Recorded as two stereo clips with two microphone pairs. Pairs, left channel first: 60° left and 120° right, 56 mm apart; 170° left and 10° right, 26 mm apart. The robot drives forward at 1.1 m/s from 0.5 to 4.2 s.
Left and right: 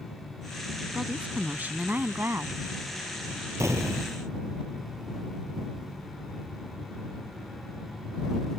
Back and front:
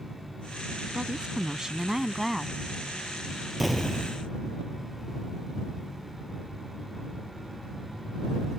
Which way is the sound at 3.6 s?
90° right.